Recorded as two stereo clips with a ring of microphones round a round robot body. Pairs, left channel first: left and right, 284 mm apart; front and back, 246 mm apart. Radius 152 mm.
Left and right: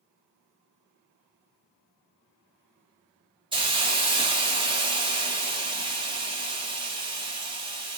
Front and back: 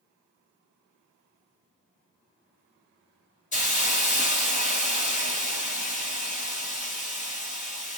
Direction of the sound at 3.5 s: 30° right.